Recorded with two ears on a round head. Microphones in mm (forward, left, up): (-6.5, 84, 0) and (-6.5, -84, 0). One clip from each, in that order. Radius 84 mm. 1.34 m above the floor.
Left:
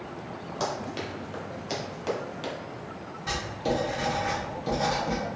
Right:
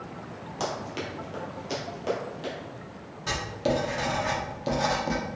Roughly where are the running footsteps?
Centre.